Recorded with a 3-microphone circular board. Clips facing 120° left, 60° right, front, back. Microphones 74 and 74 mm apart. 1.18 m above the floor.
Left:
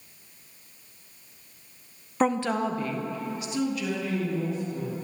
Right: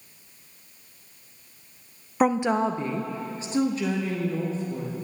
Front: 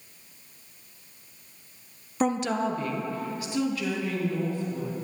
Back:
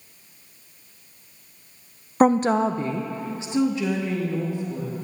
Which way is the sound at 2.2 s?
140° right.